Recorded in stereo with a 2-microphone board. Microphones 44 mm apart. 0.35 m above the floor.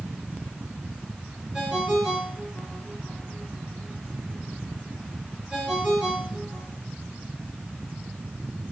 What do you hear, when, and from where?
1.5 s a ringtone: 5° left (ahead or behind), 4.5 m